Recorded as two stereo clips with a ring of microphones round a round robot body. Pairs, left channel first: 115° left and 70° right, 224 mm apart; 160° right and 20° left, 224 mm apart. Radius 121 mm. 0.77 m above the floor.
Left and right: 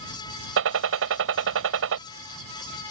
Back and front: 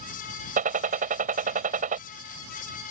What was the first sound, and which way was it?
A gunshot, 35° right.